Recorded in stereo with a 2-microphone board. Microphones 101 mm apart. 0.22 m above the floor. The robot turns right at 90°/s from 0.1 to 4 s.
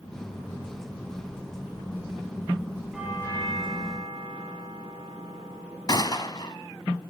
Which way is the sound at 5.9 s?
45° left (ahead or behind).